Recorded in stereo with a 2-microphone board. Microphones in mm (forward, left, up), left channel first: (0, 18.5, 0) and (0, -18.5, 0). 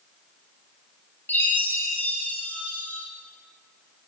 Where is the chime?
90° left, 8 m.